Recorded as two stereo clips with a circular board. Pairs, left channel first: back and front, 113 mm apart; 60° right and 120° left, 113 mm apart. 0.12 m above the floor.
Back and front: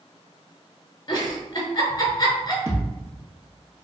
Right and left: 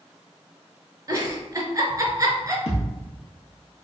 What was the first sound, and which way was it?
A giggle, 160° left.